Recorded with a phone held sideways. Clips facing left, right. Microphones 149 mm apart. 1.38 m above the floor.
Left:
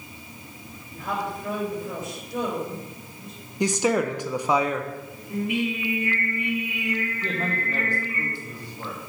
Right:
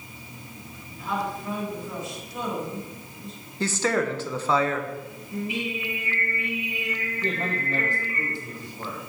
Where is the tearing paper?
I don't hear tearing paper.